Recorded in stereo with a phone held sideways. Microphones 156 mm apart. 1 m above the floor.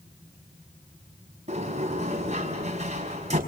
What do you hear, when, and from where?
1.5 s a sliding door: 45° right (ahead or behind), 5 m